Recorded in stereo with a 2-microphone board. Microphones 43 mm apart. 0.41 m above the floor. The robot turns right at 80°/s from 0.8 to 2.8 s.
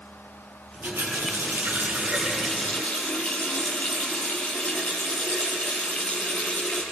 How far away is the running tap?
About 6 m.